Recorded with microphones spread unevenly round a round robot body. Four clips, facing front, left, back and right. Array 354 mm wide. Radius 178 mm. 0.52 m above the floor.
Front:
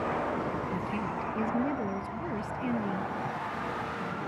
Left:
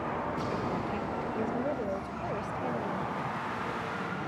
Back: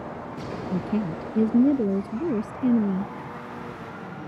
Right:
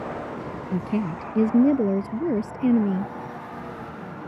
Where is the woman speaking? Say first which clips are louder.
Right 6 dB, back 5 dB; 130° right; by 3.1 s 125° right.